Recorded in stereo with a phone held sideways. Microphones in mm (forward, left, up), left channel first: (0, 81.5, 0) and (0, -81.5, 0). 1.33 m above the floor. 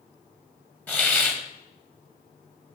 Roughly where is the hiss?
Centre.